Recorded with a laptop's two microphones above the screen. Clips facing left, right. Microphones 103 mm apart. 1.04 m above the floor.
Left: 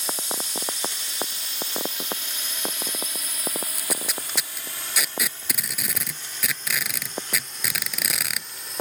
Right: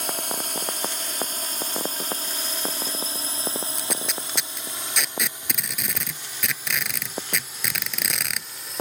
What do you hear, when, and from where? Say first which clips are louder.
0.0 s a drone: right 2 dB; 55° right (ahead or behind); by 8.8 s centre (ahead or behind)
3.8 s tape being pulled: right 1 dB; 5° left (ahead or behind)